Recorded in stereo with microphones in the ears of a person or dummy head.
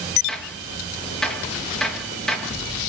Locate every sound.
0.3 s a gunshot: 5° left (ahead or behind), 3 m